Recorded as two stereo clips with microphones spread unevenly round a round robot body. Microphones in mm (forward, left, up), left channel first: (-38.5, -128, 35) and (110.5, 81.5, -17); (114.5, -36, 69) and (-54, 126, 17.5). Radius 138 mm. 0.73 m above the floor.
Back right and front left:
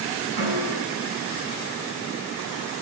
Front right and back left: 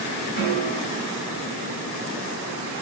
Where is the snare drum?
70° left, 6 m.